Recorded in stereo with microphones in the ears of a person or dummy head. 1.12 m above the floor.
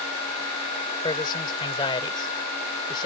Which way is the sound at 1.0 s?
30° left (ahead or behind).